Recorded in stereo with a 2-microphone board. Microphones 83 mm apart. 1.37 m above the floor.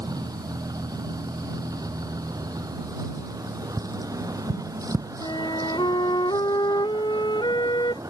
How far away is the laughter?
I don't hear laughter.